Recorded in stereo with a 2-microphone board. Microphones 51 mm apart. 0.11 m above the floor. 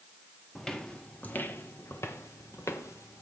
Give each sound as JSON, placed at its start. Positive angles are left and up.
{"t": 0.6, "sound": "footsteps", "side_deg": 10, "distance_m": 1.1}